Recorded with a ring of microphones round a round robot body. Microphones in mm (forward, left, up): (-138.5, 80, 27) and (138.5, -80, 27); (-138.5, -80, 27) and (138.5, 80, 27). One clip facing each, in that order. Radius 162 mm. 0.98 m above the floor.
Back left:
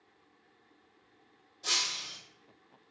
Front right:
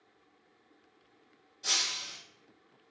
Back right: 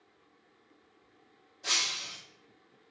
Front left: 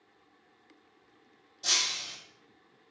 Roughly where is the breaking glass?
Ahead left.